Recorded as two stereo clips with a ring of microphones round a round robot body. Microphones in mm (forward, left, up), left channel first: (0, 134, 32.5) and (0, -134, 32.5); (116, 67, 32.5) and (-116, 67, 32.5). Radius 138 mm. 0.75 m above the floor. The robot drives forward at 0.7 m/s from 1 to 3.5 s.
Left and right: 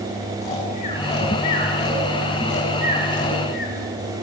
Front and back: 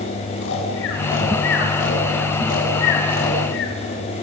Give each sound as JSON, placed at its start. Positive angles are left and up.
{"t": 0.4, "sound": "snoring", "azimuth_deg": 25, "distance_m": 9.0}